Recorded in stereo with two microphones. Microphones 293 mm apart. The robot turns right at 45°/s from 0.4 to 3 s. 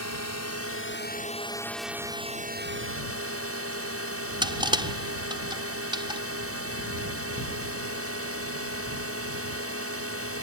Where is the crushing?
15° right (ahead or behind).